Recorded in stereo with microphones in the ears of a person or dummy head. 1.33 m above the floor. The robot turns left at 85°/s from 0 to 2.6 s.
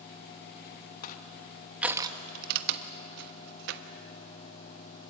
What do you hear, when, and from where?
1.0 s crushing: 60° left (ahead or behind), 1.1 m; by 3.8 s 60° right (ahead or behind), 1.1 m